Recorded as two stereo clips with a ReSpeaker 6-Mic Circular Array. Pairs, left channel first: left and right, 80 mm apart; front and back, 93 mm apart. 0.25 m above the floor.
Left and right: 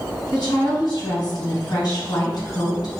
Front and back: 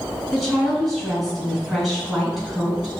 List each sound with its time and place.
0.3 s a woman speaking: 90° left, 1.9 m